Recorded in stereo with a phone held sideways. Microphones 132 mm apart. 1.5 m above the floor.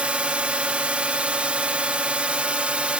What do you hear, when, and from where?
0.0 s a drone: 10° right (ahead or behind)